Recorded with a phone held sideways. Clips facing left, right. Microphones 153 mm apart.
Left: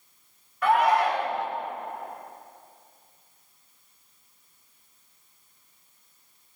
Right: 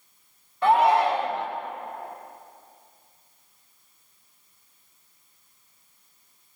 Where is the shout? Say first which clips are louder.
Right 2 dB; 25° right (ahead or behind), 1.5 m.